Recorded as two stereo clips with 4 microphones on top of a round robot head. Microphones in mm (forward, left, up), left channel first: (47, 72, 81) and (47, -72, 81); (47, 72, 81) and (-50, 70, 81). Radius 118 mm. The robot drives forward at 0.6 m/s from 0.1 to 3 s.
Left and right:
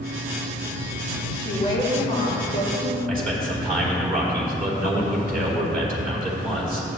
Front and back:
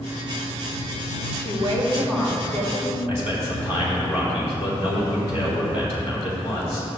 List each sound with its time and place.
1.4 s a woman speaking: 150° left, 3 m; by 3.0 s 155° left, 4 m
3.1 s a man speaking: 110° right, 3.5 m